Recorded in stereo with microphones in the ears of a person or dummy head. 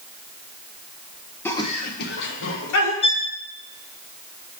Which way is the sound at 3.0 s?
30° left (ahead or behind).